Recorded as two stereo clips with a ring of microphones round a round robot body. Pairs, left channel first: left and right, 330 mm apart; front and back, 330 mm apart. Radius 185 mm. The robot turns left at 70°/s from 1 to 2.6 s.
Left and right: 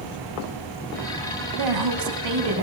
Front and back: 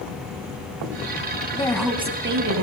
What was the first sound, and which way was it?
A woman speaking, 75° right.